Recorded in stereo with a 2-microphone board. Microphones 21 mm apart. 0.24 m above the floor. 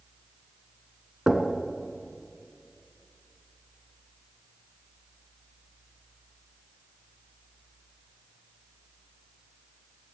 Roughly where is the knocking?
Right.